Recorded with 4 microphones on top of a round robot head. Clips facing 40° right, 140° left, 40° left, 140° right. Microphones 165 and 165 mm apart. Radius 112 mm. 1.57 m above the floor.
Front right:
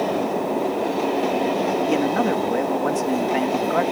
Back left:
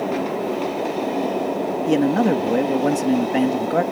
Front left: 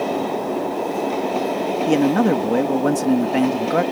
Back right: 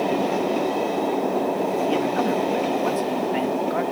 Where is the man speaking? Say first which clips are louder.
Back left 7 dB, front left 6 dB; 85° left.